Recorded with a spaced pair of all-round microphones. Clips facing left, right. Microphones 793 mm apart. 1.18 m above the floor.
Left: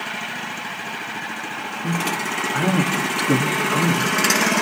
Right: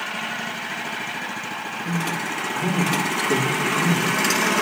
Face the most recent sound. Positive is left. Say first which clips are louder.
# left 2 dB
turn(degrees=85)